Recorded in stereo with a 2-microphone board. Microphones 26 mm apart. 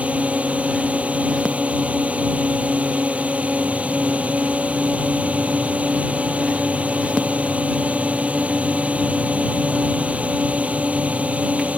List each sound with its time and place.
0.0 s a drone: 50° right (ahead or behind)